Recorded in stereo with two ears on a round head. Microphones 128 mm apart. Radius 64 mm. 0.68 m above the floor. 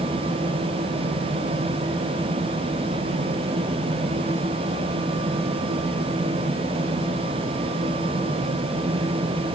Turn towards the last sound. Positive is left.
No sound to turn to.